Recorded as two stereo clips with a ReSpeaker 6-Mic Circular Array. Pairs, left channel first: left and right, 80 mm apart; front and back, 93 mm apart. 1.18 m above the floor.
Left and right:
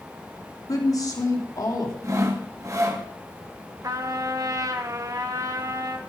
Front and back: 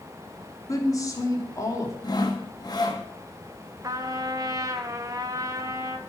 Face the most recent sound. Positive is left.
turn(degrees=-130)